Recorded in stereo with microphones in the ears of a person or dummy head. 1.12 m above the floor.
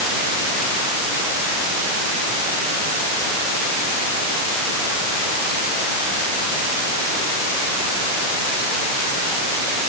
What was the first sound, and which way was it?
Only background noise.